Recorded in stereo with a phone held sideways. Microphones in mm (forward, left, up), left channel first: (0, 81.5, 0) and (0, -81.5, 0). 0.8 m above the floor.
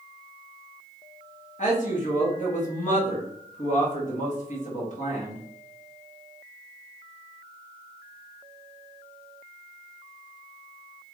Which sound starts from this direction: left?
A man speaking, at 1.6 s.